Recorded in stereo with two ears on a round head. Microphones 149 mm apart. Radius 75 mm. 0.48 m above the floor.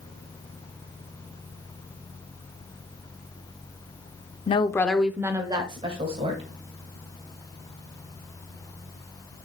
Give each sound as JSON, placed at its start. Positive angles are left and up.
{"t": 4.5, "sound": "a woman speaking", "side_deg": 35, "distance_m": 0.8}